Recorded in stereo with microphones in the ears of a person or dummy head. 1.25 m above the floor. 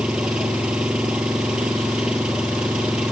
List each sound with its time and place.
0.0 s an engine running: 5° right (ahead or behind)